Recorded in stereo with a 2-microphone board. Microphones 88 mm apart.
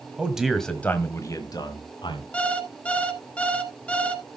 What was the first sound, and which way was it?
A man speaking, 10° right (ahead or behind).